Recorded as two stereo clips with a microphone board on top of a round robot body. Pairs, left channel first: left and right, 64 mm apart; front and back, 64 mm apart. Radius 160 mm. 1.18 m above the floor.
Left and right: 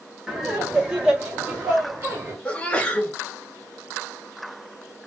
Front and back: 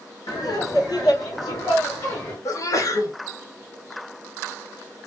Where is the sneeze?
20° left, 1.3 m.